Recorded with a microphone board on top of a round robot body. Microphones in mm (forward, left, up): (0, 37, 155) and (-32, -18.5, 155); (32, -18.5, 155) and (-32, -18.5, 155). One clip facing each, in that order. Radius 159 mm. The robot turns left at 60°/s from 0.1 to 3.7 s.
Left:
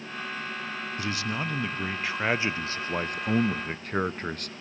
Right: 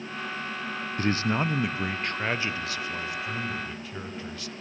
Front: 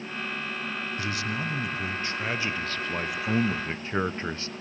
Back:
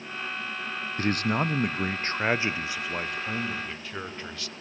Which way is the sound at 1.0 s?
150° right.